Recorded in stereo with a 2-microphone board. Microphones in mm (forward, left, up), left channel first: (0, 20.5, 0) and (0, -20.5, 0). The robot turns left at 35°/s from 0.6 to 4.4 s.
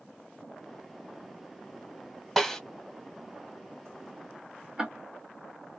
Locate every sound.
2.4 s a snare drum: 5° right (ahead or behind), 1.3 m; by 2.6 s 5° left (ahead or behind), 1.3 m
4.8 s ticking: 20° right (ahead or behind), 1.0 m